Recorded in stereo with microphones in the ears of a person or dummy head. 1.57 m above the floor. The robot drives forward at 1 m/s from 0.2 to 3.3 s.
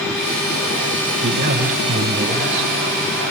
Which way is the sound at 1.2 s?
45° right (ahead or behind).